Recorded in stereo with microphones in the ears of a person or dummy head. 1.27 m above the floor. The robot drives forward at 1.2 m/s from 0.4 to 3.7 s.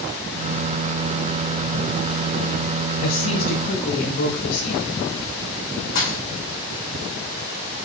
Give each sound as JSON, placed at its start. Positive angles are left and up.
{"t": 3.0, "sound": "a woman speaking", "side_deg": 85, "distance_m": 4.0}
{"t": 6.0, "sound": "a thud", "side_deg": 60, "distance_m": 5.0}